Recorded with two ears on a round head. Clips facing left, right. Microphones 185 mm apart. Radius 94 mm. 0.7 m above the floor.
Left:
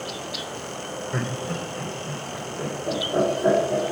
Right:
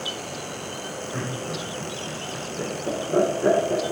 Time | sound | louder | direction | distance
1.1 | laughter | left 2 dB | 25° left (ahead or behind) | 3 m